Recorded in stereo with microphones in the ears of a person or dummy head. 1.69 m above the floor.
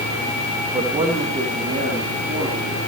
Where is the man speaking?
20° right (ahead or behind), 1.3 m; by 2.8 s 30° right (ahead or behind), 4 m.